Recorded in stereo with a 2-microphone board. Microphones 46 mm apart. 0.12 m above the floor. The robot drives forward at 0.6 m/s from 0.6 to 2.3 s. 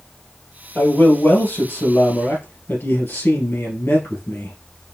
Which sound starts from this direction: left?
A man speaking, at 0.8 s.